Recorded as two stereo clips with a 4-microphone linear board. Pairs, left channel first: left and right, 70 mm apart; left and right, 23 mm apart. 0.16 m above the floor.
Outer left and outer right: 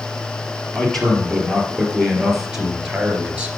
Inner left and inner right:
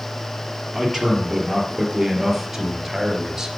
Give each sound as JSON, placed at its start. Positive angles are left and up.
{"t": 0.7, "sound": "a man speaking", "side_deg": 5, "distance_m": 3.0}